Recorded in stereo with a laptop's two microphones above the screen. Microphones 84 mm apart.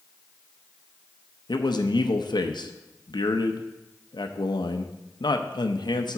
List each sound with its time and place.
1.5 s a man speaking: 65° left (ahead or behind), 0.6 m